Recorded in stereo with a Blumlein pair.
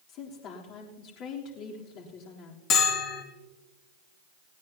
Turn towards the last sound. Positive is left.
turn(degrees=35)